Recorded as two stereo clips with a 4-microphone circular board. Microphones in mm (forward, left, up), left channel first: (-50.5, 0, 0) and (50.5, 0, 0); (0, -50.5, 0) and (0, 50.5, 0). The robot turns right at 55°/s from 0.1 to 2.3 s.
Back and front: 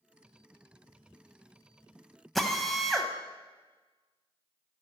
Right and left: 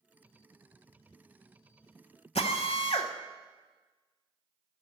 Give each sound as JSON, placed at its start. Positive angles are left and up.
{"t": 2.4, "sound": "a drill", "azimuth_deg": -90, "distance_m": 1.0}